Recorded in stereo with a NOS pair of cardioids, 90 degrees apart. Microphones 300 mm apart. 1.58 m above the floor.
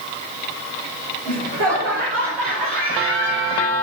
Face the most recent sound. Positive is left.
turn(degrees=-45)